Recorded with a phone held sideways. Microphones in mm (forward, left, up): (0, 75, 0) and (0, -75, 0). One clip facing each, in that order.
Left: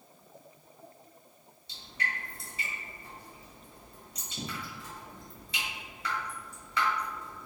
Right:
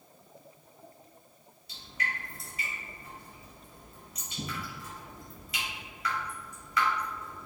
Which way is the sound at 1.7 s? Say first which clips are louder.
Even; 30° left (ahead or behind).